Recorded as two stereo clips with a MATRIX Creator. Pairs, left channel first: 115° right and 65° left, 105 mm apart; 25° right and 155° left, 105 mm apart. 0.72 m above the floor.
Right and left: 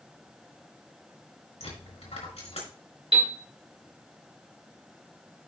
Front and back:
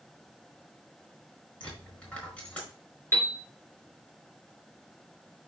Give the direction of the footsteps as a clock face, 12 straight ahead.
No footsteps in this recording.